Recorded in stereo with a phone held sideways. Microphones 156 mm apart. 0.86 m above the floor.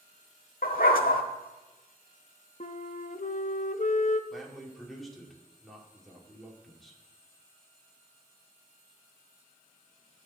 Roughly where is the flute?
Left.